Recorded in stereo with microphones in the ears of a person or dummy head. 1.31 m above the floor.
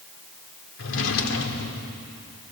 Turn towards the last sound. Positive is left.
turn(degrees=70)  # may be behind; listen again after turning